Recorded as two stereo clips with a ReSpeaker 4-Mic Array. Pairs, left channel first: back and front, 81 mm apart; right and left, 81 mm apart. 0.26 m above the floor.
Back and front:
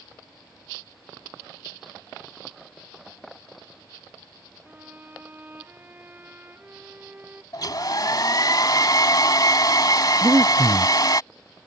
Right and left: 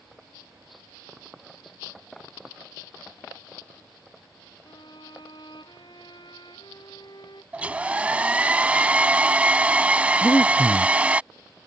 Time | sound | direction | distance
4.7 | a violin | 65° right | ?
7.5 | a hair dryer | 160° left | ?
10.2 | breathing | 45° right | ?